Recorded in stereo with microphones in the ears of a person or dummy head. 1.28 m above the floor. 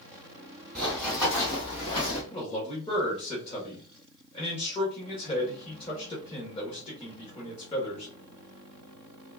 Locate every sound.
0.8 s running footsteps: 10° left (ahead or behind), 2 m; by 2.2 s 35° left (ahead or behind), 3 m
2.3 s a man speaking: 30° left (ahead or behind), 1.7 m